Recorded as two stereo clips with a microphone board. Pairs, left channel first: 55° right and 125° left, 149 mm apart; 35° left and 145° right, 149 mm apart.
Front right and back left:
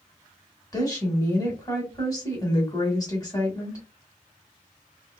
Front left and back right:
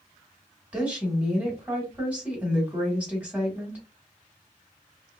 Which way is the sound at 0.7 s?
75° right.